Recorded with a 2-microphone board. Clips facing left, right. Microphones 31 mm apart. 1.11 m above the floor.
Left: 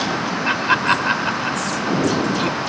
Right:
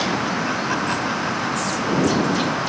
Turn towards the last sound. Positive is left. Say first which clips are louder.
# left 5 dB
turn(degrees=55)  # may be behind; listen again after turning